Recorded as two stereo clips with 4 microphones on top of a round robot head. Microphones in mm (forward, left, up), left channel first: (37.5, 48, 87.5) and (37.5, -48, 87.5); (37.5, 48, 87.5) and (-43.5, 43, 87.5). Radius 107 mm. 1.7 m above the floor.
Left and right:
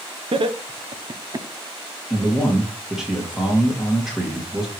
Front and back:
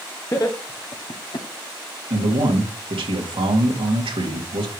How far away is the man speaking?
About 2 m.